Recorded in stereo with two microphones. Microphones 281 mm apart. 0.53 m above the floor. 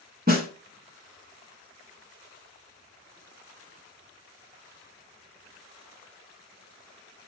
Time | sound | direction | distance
0.3 | a snare drum | 35° right (ahead or behind) | 0.8 m